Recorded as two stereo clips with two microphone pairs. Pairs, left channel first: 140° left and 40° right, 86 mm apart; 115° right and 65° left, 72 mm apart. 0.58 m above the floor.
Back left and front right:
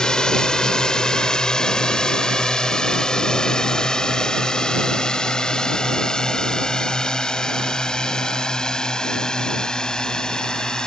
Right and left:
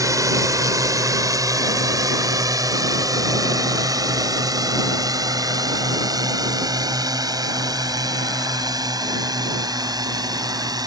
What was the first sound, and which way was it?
A drone, 65° left.